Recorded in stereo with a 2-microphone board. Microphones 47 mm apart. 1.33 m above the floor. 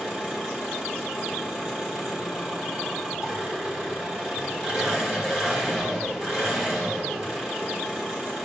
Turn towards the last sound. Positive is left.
turn(degrees=-20)  # may be behind; listen again after turning